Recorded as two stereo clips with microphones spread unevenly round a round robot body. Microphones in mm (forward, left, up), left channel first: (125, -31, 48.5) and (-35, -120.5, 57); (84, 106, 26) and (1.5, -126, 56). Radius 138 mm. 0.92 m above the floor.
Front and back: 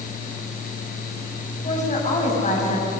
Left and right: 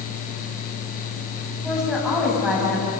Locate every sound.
1.6 s a woman speaking: 20° right, 8 m